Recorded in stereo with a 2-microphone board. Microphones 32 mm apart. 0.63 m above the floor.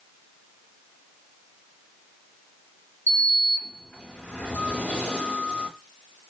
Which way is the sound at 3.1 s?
70° left (ahead or behind).